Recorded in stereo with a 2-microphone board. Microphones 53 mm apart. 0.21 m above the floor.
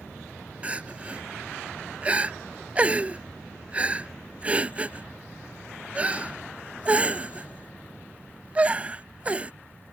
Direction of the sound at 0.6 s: 25° right (ahead or behind).